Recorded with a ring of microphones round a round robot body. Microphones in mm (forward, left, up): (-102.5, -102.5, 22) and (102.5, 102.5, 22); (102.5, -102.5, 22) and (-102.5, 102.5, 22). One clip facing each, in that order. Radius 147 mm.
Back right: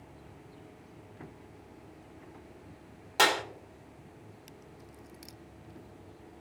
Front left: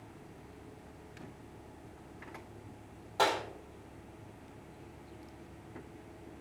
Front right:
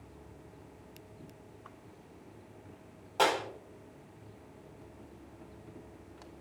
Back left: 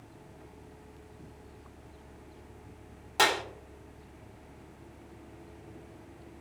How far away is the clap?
About 1.4 m.